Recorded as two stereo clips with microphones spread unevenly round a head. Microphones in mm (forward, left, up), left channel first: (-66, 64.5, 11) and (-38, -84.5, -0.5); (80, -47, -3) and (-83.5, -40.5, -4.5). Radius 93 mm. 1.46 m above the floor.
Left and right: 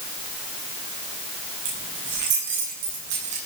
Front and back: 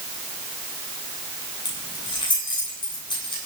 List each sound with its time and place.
1.6 s keys jangling: 65° right, 9 m